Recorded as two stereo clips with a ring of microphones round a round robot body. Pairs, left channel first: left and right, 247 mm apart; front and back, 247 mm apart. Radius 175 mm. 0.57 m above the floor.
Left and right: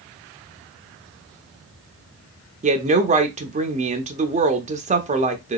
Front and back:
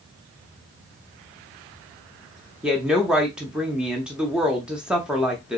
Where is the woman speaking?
95° right, 0.6 m.